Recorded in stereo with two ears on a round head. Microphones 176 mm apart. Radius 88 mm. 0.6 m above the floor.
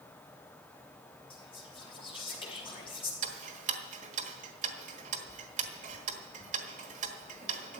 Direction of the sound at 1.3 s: 30° left (ahead or behind).